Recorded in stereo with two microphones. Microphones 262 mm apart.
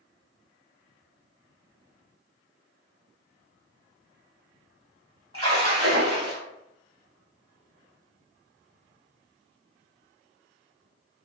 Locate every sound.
5.3 s a splash: 55° right (ahead or behind), 1.5 m